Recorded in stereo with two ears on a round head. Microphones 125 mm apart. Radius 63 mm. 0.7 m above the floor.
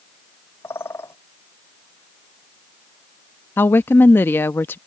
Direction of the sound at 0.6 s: 15° left (ahead or behind).